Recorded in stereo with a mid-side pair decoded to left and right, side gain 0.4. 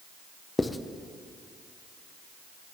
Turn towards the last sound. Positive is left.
turn(degrees=25)